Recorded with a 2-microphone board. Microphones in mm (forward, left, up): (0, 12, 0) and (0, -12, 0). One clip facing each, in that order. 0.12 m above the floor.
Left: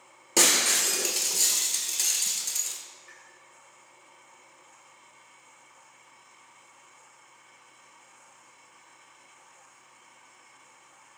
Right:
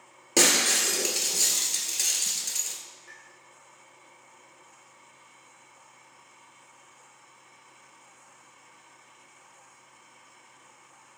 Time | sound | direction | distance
0.4 | breaking glass | centre (ahead or behind) | 0.6 m
3.1 | a pop | 70° right (ahead or behind) | 1.9 m